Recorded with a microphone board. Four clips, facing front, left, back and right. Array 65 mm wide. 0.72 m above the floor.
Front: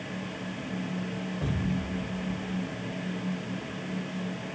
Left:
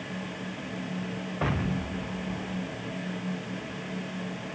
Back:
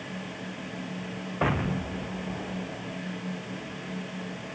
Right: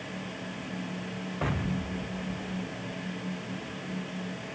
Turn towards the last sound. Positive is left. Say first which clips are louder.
# left 2 dB, back 6 dB
turn(degrees=175)